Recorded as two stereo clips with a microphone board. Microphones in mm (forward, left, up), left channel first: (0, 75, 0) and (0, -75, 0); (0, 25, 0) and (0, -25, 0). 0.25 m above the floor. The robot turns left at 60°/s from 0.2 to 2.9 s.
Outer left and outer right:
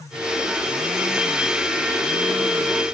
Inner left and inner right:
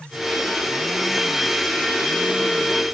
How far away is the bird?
I don't hear a bird.